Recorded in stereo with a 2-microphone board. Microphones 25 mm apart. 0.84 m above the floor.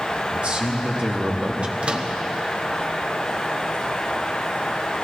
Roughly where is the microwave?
Right.